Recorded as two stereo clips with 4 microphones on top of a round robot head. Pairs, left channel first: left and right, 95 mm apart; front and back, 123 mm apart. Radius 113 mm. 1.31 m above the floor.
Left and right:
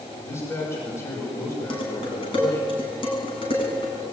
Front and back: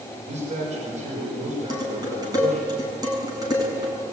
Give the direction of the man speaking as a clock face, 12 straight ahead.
7 o'clock.